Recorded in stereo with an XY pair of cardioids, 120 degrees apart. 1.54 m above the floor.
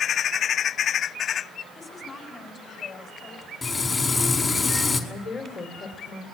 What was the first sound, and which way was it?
A woman speaking, 35° left.